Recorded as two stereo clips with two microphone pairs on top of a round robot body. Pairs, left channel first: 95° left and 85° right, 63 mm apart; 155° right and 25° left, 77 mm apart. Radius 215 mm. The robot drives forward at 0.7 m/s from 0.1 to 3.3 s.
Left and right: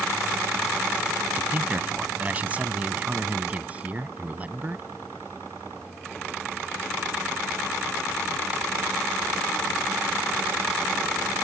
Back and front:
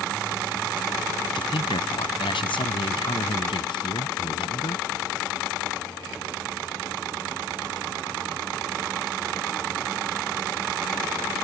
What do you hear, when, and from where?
1.4 s a man speaking: 150° right; by 4.8 s 155° right